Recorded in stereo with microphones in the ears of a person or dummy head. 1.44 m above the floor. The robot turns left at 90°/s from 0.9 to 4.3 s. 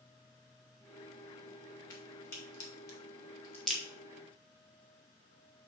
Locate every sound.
1.9 s a crack: 20° left (ahead or behind), 3 m; by 3.8 s 10° right (ahead or behind), 3 m